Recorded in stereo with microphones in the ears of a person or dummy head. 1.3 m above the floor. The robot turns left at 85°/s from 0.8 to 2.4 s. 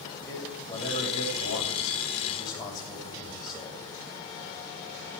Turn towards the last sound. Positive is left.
turn(degrees=30)